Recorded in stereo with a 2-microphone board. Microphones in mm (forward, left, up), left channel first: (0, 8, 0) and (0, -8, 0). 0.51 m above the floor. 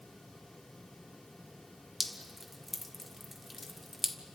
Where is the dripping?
10° right (ahead or behind), 1.4 m.